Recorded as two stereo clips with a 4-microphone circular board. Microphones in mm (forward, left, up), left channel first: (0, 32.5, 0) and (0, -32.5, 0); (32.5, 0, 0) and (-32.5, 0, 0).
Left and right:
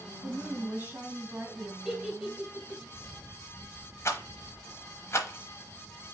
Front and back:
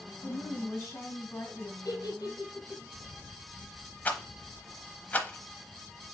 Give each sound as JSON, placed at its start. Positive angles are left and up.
{"t": 0.2, "sound": "a woman speaking", "azimuth_deg": -35, "distance_m": 2.0}
{"t": 1.9, "sound": "a giggle", "azimuth_deg": -15, "distance_m": 2.5}
{"t": 4.0, "sound": "a rattle", "azimuth_deg": 60, "distance_m": 0.9}